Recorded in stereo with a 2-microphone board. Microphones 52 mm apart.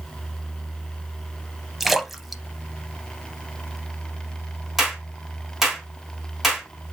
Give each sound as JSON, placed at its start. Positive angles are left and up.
{"t": 1.8, "sound": "a splash", "side_deg": 0, "distance_m": 0.6}
{"t": 4.8, "sound": "a clap", "side_deg": -5, "distance_m": 1.7}